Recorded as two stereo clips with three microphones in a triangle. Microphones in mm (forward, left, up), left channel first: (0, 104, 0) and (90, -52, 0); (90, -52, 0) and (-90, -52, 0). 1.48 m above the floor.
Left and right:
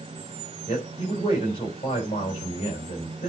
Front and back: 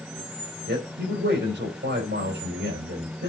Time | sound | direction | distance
0.7 | a man speaking | straight behind | 4.5 m